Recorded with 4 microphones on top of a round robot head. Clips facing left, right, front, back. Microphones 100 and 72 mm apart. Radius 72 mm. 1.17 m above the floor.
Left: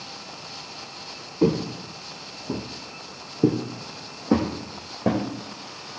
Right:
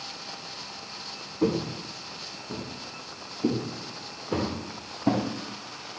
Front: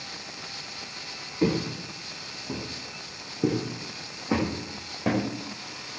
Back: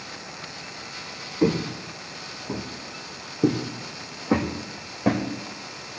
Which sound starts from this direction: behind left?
Footsteps, at 1.4 s.